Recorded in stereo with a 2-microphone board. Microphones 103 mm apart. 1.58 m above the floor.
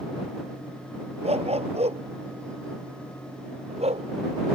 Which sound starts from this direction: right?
A dog barking, at 1.2 s.